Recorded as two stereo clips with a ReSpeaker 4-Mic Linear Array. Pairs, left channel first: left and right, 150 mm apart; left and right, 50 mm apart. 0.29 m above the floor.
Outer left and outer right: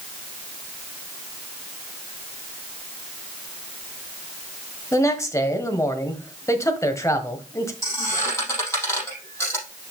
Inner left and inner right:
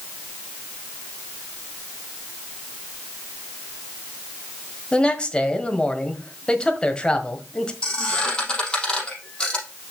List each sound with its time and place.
4.9 s a man speaking: 20° left (ahead or behind), 1.3 m
7.8 s a squeak: 20° left (ahead or behind), 5 m